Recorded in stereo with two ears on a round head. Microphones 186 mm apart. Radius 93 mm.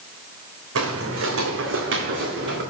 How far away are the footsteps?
About 1.8 m.